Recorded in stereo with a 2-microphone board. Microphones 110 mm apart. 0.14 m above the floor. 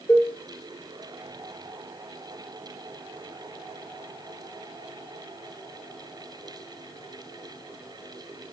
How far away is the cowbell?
About 1.4 m.